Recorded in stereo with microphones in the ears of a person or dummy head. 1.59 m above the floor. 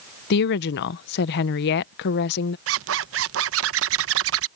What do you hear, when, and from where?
0.3 s a woman speaking: 60° left (ahead or behind)
2.7 s a zipper: 75° right (ahead or behind)